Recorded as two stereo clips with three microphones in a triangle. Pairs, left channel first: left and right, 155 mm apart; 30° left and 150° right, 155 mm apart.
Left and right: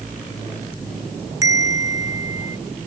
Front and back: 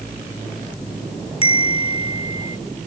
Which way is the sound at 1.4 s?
20° right.